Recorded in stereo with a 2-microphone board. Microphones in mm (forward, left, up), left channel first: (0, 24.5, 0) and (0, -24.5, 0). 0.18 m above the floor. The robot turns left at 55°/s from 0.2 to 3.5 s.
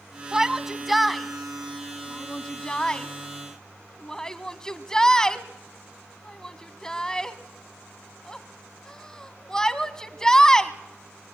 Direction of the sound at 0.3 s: 15° right (ahead or behind).